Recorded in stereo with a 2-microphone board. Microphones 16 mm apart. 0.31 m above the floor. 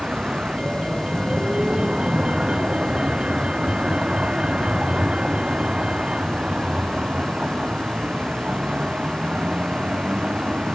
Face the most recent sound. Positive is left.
turn(degrees=-85)